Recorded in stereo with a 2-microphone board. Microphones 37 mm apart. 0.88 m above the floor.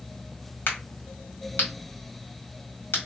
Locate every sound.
0.7 s a crack: 65° left (ahead or behind), 1.7 m